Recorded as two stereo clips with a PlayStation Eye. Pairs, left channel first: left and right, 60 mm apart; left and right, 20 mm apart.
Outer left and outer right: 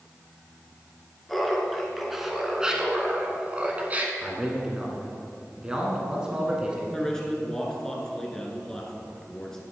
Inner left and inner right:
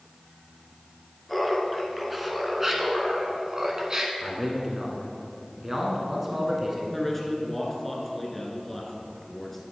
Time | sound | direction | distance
1.3 | laughter | 5° left (ahead or behind) | 1.7 m
4.2 | a man speaking | 15° right (ahead or behind) | 1.5 m
6.9 | a man speaking | 10° left (ahead or behind) | 1.7 m